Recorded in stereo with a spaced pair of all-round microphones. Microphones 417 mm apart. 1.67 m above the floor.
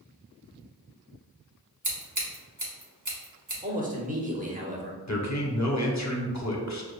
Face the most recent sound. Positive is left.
turn(degrees=45)  # may be behind; listen again after turning